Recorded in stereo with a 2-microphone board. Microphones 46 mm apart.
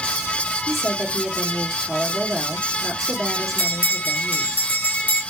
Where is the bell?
45° left (ahead or behind), 2 m.